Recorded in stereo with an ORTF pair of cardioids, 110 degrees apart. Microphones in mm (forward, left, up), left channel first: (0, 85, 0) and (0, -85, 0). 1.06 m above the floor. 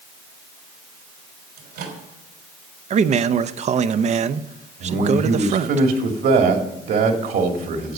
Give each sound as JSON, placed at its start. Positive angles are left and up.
{"t": 1.6, "sound": "a microwave", "azimuth_deg": -70, "distance_m": 3.5}
{"t": 2.9, "sound": "a man speaking", "azimuth_deg": -40, "distance_m": 0.7}
{"t": 4.8, "sound": "a man speaking", "azimuth_deg": -60, "distance_m": 2.5}